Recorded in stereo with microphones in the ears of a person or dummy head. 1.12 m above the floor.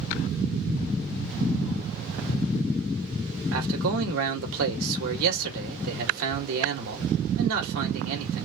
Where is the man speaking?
75° right (ahead or behind), 2 m.